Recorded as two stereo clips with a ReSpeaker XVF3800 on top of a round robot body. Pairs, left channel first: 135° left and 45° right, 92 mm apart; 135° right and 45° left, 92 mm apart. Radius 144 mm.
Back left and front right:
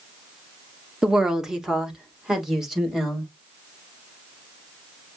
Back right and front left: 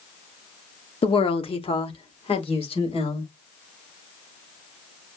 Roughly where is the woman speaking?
Behind right.